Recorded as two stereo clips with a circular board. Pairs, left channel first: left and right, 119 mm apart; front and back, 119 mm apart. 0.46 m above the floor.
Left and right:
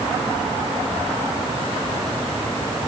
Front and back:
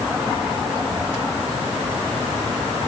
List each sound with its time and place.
Only background noise.